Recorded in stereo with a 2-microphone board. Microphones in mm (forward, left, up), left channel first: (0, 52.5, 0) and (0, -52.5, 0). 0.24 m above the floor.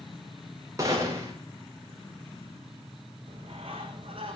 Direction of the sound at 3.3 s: 55° right (ahead or behind).